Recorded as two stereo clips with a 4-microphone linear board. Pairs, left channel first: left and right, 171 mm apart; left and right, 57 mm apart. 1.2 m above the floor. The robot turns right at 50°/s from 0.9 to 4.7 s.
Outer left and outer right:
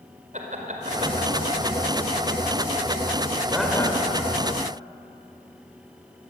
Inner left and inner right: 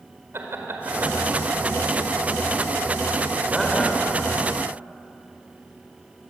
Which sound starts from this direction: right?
Laughter, at 0.3 s.